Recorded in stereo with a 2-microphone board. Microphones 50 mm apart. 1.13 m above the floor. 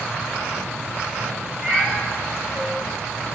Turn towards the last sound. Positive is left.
turn(degrees=15)  # may be behind; listen again after turning